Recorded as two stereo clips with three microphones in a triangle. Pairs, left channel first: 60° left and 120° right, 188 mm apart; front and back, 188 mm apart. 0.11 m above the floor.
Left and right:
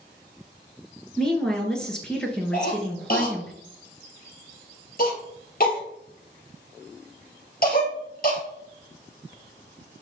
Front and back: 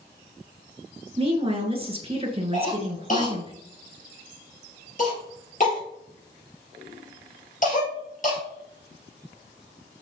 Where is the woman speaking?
145° left, 1.4 m.